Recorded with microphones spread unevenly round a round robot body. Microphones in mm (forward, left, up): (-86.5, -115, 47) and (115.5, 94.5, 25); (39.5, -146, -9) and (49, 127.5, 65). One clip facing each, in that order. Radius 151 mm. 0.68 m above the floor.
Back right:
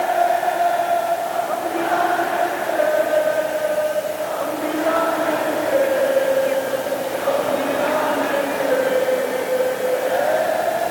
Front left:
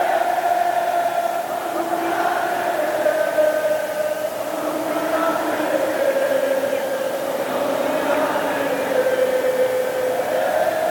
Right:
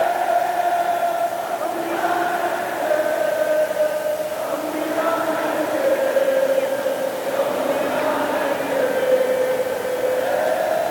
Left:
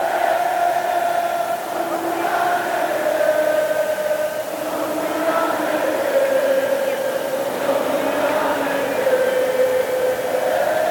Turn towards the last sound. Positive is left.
No sound to turn to.